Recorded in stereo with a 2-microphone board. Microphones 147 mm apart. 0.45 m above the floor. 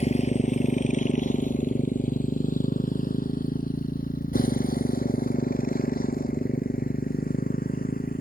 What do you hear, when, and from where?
0.0 s a motorcycle: 50° left (ahead or behind); by 8.2 s 80° left